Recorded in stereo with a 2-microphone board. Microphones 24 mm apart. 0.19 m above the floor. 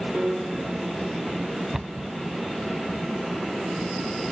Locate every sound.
0.1 s a piano: 45° right (ahead or behind), 2 m
1.7 s a cupboard door: 15° right (ahead or behind), 0.5 m